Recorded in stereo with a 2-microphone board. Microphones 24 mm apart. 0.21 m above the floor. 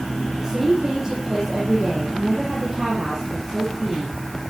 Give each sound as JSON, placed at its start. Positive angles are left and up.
{"t": 0.4, "sound": "a woman speaking", "side_deg": -10, "distance_m": 7.5}